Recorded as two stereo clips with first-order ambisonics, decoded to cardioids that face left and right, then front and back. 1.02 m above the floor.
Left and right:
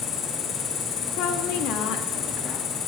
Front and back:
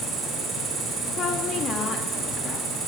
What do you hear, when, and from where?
0.0 s an insect: 125° left, 3 m
1.2 s a woman speaking: 60° left, 1.6 m